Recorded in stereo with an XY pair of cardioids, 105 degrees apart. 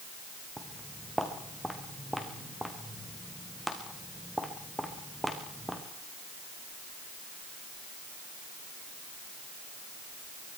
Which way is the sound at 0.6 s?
5° right.